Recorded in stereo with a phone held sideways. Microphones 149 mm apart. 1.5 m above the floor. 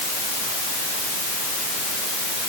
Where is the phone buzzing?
I don't hear a phone buzzing.